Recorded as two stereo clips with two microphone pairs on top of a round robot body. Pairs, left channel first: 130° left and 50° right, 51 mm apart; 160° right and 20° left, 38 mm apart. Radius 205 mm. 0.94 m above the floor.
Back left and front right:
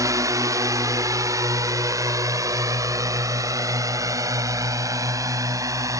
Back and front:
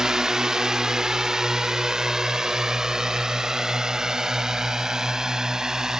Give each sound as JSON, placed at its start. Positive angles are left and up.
{"t": 0.0, "sound": "a drone", "azimuth_deg": -50}